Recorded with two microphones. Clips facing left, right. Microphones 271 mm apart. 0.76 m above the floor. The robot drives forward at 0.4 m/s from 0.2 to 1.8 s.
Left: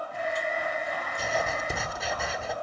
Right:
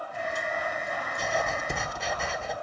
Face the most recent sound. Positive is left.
turn(degrees=0)  # may be behind; listen again after turning